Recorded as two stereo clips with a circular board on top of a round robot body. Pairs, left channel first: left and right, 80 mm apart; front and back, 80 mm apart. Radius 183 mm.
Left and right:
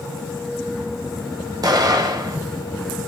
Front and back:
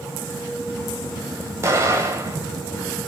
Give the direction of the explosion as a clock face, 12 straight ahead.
4 o'clock.